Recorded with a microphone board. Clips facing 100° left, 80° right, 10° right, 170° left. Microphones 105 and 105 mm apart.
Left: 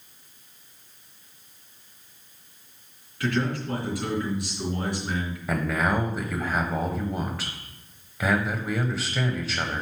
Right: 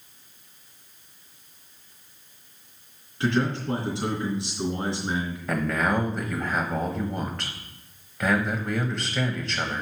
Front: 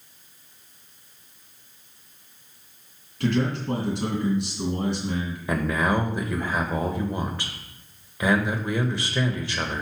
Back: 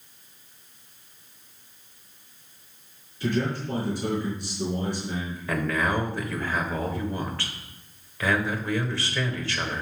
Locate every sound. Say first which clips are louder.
3.2 s a man speaking: right 2 dB, front 2 dB; 10° right, 2.5 m
5.5 s a man speaking: even, front 2 dB; 20° left, 0.9 m